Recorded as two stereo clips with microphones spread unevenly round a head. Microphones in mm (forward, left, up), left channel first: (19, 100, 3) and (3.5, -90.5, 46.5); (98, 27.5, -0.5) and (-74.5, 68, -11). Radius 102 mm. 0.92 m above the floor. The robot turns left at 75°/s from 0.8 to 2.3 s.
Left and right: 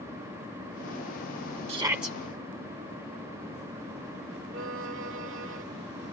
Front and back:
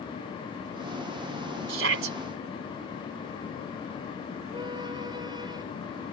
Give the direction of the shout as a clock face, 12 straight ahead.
5 o'clock.